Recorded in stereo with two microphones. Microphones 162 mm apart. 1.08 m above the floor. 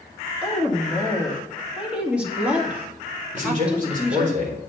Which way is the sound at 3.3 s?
50° right (ahead or behind).